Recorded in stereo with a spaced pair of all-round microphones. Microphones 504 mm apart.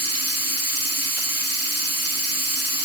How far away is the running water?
About 1.3 m.